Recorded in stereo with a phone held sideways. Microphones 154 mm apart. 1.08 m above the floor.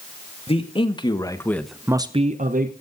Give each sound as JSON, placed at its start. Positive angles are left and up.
{"t": 0.5, "sound": "a man speaking", "side_deg": 40, "distance_m": 2.0}